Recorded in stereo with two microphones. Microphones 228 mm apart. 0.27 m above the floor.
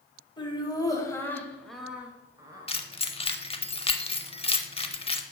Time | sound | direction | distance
0.4 | laughter | 20° left (ahead or behind) | 1.8 m
2.7 | keys jangling | 25° left (ahead or behind) | 0.6 m